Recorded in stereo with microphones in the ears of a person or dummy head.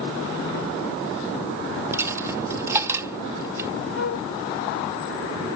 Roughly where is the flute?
Left.